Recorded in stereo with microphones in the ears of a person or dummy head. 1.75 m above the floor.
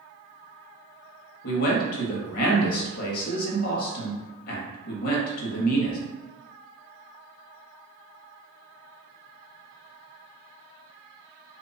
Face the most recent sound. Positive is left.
turn(degrees=55)  # may be behind; listen again after turning